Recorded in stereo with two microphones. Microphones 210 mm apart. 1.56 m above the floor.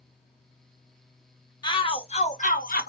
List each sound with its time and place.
1.6 s a shout: 20° left (ahead or behind), 1.1 m; by 2.9 s 50° left (ahead or behind), 0.9 m